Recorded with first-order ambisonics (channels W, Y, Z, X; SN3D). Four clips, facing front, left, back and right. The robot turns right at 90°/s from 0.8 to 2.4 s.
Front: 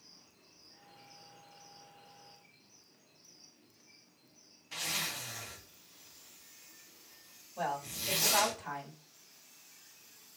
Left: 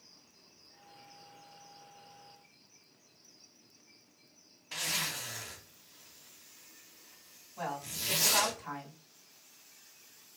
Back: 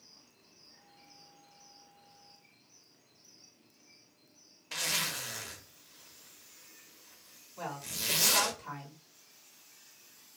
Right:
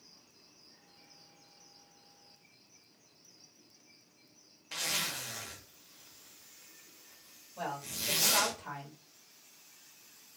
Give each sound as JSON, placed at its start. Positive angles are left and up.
{"t": 4.7, "sound": "a zipper", "azimuth_deg": -170, "distance_m": 0.8}
{"t": 7.6, "sound": "a woman speaking", "azimuth_deg": -40, "distance_m": 1.8}